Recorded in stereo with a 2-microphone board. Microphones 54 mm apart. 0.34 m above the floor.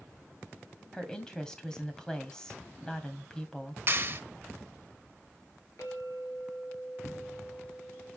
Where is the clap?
40° right (ahead or behind), 1.2 m.